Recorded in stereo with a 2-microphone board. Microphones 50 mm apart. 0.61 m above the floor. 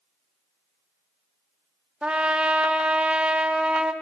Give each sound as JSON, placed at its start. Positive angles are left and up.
{"t": 2.0, "sound": "a trumpet", "side_deg": -20, "distance_m": 1.1}